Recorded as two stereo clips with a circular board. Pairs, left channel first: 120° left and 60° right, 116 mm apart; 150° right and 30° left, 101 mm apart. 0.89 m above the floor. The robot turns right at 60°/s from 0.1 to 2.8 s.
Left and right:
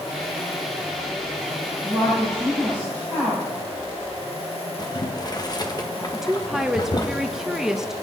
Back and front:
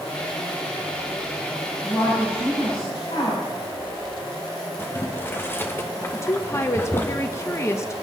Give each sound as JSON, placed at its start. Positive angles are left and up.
{"t": 1.8, "sound": "a woman speaking", "azimuth_deg": 135, "distance_m": 6.5}
{"t": 4.8, "sound": "boiling", "azimuth_deg": 155, "distance_m": 1.0}
{"t": 6.1, "sound": "a woman speaking", "azimuth_deg": -140, "distance_m": 1.0}